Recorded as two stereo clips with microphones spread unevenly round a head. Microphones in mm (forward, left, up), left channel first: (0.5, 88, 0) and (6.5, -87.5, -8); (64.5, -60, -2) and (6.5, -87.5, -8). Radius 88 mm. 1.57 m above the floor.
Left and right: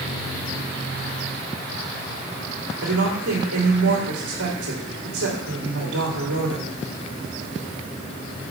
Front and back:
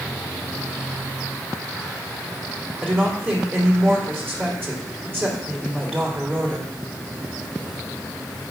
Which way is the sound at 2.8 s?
90° right.